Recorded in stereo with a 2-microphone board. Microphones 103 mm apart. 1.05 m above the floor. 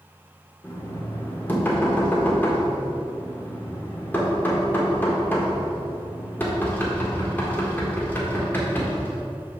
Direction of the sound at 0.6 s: 20° left (ahead or behind).